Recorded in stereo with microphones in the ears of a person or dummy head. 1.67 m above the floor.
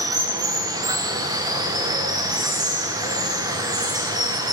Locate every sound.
0.0 s running water: 15° right (ahead or behind), 1.0 m